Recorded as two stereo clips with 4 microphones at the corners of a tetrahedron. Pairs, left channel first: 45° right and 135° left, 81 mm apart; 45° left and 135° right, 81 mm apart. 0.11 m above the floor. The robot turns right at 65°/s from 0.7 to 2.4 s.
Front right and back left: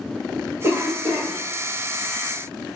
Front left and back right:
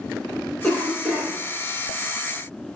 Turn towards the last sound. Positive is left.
turn(degrees=-130)